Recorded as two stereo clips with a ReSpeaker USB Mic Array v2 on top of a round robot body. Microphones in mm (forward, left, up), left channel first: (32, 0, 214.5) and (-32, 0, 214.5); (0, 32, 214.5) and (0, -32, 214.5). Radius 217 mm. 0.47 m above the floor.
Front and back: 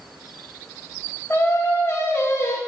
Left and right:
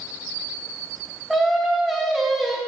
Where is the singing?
Straight ahead, 0.7 m.